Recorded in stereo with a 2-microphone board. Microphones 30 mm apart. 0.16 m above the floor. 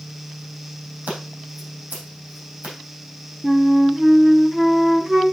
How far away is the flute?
About 0.8 m.